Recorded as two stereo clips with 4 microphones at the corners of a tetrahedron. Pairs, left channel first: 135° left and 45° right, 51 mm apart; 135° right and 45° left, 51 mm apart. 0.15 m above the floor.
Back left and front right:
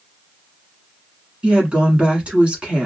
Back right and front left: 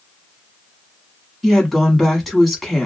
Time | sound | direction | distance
1.4 | a woman speaking | 45° right | 1.2 m